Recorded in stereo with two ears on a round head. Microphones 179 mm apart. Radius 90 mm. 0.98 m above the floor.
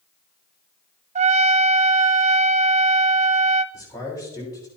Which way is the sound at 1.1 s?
30° right (ahead or behind).